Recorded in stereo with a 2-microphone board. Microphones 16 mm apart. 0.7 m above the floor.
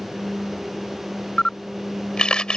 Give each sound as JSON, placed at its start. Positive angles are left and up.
{"t": 1.4, "sound": "a camera shutter", "side_deg": 70}